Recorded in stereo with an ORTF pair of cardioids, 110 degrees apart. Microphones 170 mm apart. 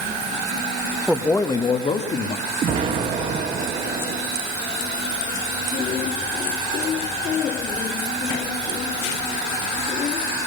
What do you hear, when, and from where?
1.1 s a man speaking: 5° left, 1.2 m; by 2.5 s 50° left, 2 m
2.6 s an explosion: 50° right, 2.5 m